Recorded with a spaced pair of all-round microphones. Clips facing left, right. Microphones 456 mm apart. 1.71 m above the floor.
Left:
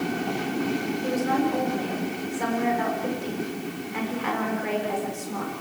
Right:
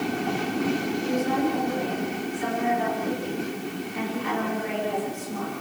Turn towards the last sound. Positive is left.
turn(degrees=90)